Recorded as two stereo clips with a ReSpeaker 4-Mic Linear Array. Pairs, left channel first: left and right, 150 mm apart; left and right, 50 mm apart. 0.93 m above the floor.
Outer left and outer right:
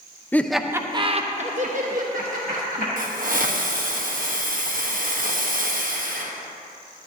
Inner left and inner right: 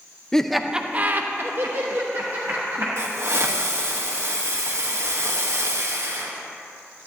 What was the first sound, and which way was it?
Laughter, 10° left (ahead or behind).